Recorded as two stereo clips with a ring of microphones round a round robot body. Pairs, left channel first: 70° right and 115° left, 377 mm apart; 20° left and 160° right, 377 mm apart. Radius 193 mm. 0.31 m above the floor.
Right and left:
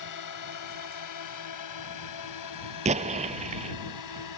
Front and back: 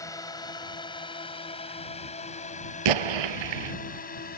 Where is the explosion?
175° right.